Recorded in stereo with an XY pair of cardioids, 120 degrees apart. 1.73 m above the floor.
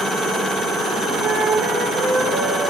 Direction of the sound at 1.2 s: 50° right.